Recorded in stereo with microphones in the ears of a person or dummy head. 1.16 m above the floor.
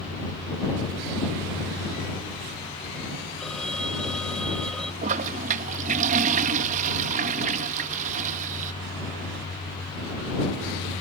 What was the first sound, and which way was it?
A phone ringing, centre (ahead or behind).